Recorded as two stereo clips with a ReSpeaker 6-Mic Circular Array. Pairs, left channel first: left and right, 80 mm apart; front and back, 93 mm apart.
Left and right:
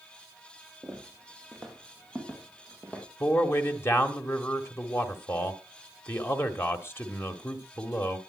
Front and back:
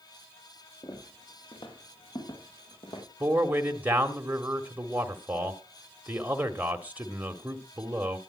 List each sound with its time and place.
0.8 s footsteps: 5° right, 5.5 m; by 3.0 s 20° left, 6.5 m
3.2 s a man speaking: 120° left, 1.7 m